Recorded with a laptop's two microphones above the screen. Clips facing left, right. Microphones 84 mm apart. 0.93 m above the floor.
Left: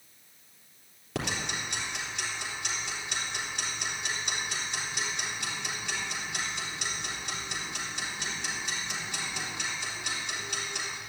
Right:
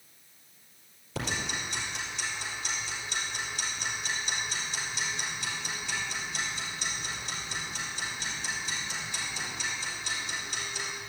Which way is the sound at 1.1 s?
75° left (ahead or behind).